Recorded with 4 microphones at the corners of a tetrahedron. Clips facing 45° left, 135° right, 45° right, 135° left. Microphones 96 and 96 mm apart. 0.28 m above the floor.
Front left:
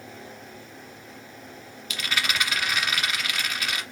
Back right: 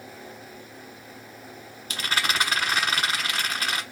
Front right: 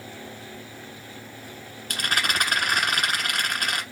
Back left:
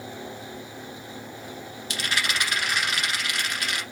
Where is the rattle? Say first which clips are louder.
Back right 2 dB, front right 2 dB; 85° right, 1.2 m.